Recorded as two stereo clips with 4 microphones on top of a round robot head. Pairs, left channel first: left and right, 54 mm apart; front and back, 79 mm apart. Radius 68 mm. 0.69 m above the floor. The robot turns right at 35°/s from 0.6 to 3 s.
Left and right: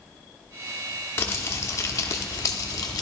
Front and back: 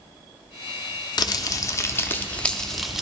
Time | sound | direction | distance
1.2 | crumpling | 30° left | 0.7 m